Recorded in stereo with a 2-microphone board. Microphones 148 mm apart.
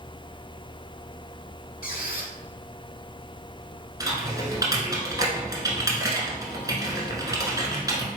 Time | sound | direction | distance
1.8 | a squeak | 75° left (ahead or behind) | 0.7 m
4.0 | typing on a keyboard | 25° right (ahead or behind) | 1.1 m